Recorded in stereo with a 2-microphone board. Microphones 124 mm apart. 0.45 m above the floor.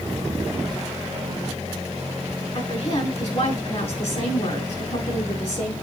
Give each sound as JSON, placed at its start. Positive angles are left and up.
{"t": 2.5, "sound": "a woman speaking", "side_deg": 45, "distance_m": 3.5}